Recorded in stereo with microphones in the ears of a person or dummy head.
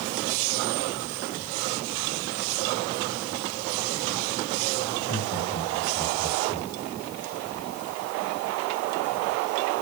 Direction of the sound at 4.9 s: 80° left.